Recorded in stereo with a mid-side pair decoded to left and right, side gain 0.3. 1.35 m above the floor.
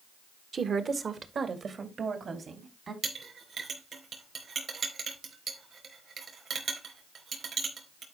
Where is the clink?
65° right, 4 m.